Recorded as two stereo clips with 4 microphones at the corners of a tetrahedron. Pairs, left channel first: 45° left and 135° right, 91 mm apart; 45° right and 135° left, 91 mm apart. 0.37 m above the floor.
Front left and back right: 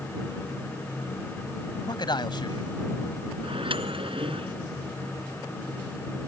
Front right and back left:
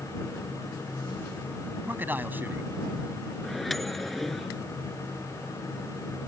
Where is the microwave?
135° right.